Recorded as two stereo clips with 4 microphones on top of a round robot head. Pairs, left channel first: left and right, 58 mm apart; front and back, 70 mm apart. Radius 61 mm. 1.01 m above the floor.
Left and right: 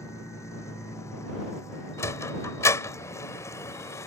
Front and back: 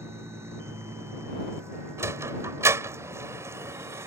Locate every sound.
0.0 s a vehicle: 125° left
2.0 s a sliding door: 130° left